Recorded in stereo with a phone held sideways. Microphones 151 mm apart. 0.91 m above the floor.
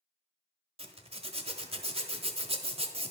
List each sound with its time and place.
0.8 s a zipper: 40° right (ahead or behind), 0.9 m